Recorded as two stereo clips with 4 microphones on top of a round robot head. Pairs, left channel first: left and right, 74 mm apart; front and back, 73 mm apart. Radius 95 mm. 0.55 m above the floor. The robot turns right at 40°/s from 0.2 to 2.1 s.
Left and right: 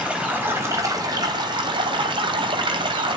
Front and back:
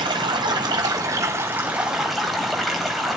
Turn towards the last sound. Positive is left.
turn(degrees=-90)